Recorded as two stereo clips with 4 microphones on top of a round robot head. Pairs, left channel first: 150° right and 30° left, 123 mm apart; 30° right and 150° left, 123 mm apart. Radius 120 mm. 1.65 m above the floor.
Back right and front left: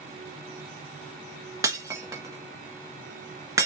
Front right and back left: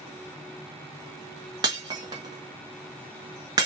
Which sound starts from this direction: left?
Breaking glass, at 1.6 s.